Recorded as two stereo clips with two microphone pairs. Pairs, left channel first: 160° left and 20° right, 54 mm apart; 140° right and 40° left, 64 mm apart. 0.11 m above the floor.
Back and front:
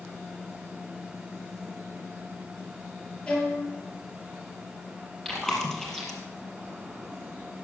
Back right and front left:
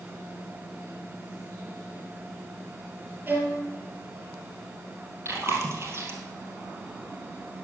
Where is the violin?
95° left, 3 m.